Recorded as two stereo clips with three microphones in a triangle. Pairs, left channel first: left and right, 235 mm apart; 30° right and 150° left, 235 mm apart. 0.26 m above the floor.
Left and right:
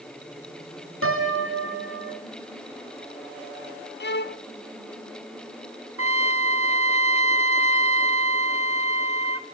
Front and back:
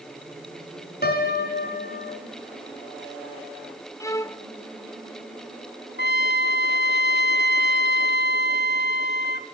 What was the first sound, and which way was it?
A piano, 75° right.